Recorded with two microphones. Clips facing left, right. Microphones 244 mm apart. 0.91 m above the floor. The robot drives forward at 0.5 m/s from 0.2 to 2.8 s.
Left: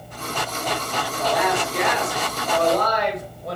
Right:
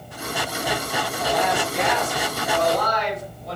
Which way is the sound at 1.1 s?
75° left (ahead or behind).